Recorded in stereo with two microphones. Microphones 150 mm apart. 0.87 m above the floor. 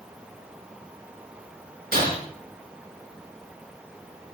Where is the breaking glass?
80° right, 6.5 m.